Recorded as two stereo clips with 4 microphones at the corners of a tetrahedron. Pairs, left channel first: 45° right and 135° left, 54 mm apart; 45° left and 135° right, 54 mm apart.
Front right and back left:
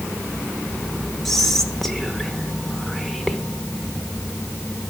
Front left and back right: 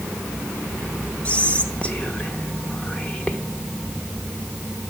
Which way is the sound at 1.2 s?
35° left.